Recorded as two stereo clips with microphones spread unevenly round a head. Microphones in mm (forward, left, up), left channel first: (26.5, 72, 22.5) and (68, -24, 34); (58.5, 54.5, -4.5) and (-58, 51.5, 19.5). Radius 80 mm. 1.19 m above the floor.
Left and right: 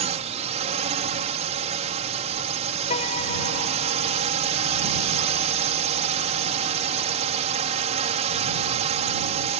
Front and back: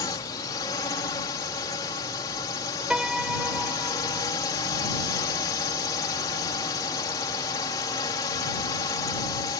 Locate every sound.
0.0 s a drone: 60° right
2.9 s a piano: 110° left